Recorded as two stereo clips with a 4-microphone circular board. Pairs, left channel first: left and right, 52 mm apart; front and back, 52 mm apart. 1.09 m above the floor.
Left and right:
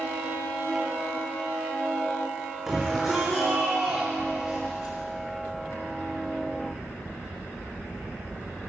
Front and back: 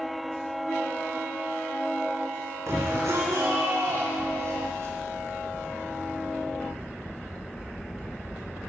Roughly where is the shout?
Behind.